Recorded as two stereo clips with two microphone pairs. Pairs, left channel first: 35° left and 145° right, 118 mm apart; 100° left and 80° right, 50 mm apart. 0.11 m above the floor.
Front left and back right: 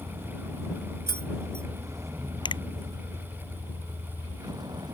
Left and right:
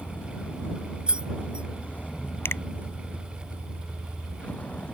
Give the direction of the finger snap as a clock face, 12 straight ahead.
9 o'clock.